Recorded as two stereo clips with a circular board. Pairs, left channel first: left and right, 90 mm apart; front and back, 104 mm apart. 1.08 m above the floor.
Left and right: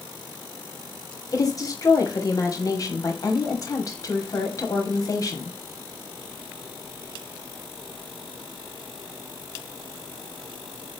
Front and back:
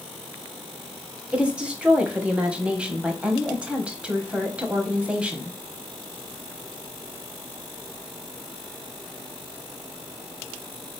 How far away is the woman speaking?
About 0.9 m.